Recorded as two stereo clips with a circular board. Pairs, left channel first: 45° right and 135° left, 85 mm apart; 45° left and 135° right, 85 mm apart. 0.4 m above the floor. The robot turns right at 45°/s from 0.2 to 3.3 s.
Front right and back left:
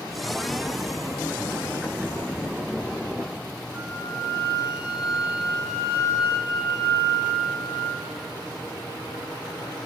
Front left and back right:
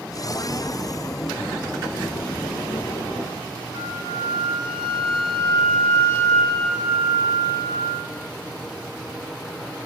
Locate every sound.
3.7 s a flute: 175° right, 0.9 m